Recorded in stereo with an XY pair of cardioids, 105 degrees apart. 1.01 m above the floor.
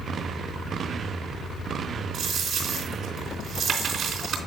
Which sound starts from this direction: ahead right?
A dropped coin, at 2.1 s.